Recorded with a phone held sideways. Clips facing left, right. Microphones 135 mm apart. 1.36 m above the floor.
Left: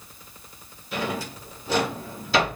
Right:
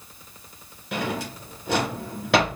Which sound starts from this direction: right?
A drawer, at 0.9 s.